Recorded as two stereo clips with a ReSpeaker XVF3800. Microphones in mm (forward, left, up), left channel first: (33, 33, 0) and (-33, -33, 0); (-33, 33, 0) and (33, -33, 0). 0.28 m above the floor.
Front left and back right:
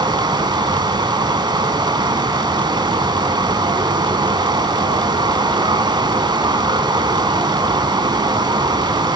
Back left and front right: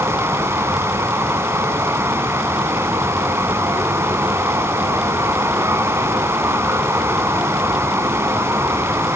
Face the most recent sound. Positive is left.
turn(degrees=-105)